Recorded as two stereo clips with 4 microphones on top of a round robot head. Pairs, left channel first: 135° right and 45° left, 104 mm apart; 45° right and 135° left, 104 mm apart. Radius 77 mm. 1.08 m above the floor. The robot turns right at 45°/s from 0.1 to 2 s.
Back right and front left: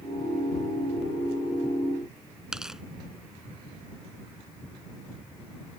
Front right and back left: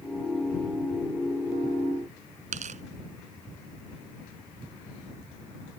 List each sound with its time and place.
2.5 s tearing paper: 135° left